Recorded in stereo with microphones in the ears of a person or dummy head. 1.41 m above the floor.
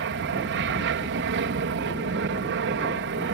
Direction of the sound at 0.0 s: 60° right (ahead or behind).